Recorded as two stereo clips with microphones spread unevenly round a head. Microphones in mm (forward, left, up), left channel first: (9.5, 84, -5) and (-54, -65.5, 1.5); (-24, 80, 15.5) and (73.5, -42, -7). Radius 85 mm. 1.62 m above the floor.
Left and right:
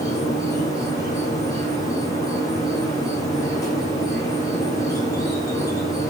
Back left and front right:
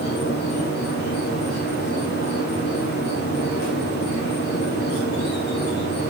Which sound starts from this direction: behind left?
An insect, at 0.0 s.